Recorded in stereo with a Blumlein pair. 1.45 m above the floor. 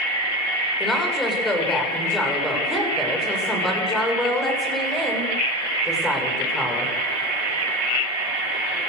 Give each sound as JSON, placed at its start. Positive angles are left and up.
{"t": 0.8, "sound": "a woman speaking", "azimuth_deg": 5, "distance_m": 6.5}